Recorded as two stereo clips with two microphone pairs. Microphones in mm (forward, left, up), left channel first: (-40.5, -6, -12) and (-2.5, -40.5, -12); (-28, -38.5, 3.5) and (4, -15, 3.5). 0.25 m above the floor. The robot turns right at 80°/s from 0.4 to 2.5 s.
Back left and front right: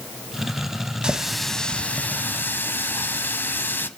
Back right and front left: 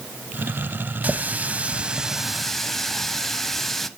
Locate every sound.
1.0 s a running tap: 25° left, 0.8 m; by 3.9 s 140° left, 0.8 m